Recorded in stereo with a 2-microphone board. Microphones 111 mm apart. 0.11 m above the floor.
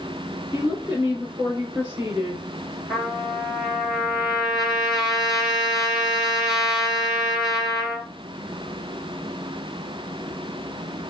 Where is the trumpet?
5° right (ahead or behind), 2.5 m.